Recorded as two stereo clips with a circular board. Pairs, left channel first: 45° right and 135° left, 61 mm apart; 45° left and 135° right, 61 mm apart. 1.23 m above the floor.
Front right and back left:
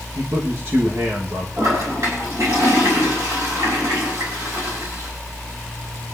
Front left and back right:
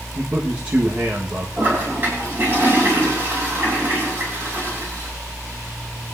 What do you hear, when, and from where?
0.1 s a man speaking: 170° left, 1.4 m
1.6 s a toilet flushing: 170° left, 5.5 m